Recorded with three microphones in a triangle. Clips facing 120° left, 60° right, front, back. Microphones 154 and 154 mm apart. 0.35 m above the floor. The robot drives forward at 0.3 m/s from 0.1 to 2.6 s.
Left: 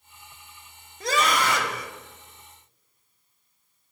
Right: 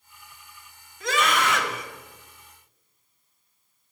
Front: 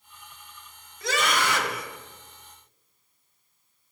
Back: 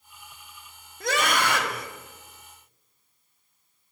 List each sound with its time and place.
1.0 s a scream: 165° left, 1.5 m; by 1.9 s 170° left, 1.7 m